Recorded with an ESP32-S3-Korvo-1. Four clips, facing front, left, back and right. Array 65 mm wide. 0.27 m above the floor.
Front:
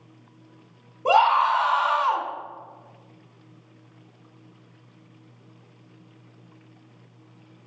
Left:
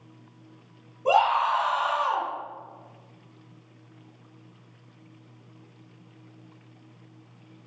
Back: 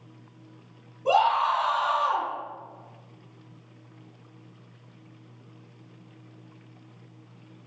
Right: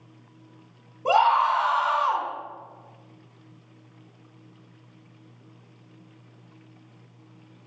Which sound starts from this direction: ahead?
A scream, at 1.1 s.